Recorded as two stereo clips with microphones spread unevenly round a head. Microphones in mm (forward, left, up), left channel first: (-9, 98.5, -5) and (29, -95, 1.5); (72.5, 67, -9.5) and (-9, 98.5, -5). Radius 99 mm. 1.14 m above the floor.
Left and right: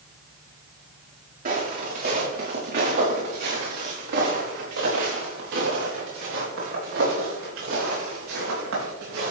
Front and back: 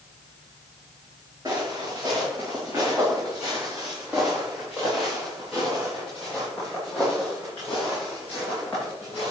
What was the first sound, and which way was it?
Footsteps, 125° right.